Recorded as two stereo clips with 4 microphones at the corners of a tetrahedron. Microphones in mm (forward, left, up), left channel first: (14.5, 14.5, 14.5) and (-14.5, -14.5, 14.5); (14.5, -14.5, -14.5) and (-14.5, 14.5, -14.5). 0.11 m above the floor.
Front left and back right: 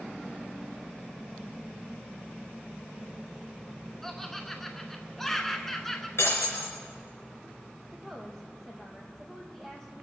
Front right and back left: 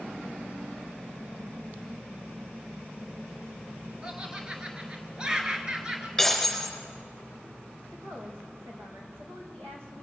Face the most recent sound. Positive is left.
turn(degrees=125)